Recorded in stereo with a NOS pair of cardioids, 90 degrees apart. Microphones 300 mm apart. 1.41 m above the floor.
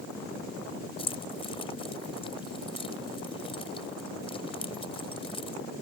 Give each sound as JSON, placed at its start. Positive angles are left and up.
{"t": 1.0, "sound": "keys jangling", "azimuth_deg": 15}